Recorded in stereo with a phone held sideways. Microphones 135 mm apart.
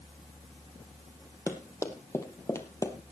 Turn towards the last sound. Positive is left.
turn(degrees=20)  # may be behind; listen again after turning